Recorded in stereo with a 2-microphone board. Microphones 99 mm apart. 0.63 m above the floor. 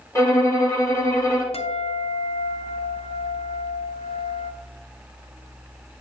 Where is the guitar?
80° left, 0.6 m.